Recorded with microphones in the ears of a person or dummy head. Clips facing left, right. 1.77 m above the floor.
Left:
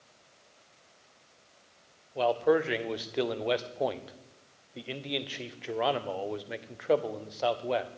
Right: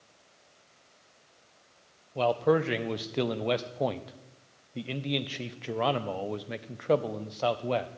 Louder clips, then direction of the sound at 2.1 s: Even; centre (ahead or behind).